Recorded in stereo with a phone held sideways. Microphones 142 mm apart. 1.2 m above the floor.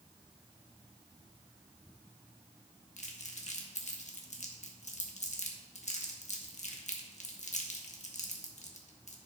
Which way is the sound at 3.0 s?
60° left (ahead or behind).